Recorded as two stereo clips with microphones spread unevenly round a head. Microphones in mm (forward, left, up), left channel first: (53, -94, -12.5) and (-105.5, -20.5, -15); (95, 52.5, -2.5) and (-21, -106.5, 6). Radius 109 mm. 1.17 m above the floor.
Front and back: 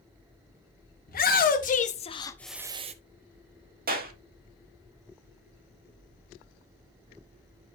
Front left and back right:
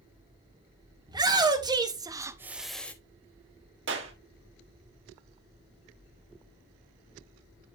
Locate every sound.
1.1 s a shout: 55° right, 1.5 m; by 2.9 s 130° left, 0.7 m
3.9 s a clap: 170° right, 1.8 m